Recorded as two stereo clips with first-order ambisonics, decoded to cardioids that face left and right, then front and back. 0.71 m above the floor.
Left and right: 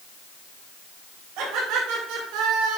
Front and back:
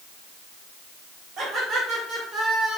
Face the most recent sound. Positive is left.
turn(degrees=-100)